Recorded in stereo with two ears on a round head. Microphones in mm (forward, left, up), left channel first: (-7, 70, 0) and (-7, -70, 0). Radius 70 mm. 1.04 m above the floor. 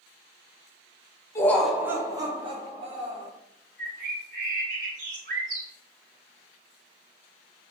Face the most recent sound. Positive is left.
turn(degrees=-65)  # may be behind; listen again after turning